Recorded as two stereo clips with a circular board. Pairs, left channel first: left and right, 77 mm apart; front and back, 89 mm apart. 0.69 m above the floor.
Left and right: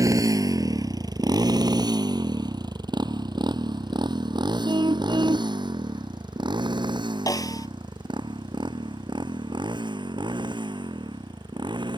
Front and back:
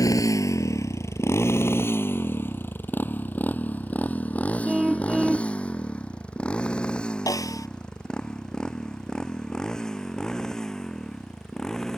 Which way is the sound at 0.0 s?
50° right.